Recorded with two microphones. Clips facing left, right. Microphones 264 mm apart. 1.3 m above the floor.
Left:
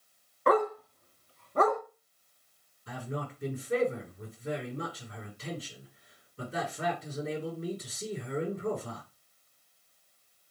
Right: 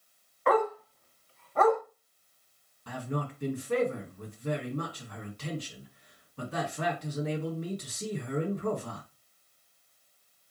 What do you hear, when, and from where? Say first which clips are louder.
0.5 s a dog barking: even; 35° left (ahead or behind), 0.9 m
2.9 s a man speaking: right 3 dB; 70° right (ahead or behind), 2.5 m